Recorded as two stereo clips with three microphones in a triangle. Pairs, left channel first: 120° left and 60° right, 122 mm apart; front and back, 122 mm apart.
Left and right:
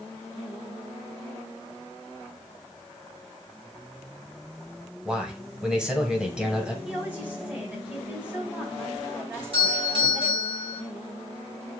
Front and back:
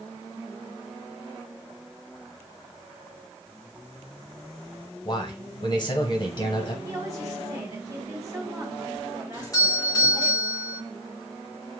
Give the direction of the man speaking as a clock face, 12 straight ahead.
11 o'clock.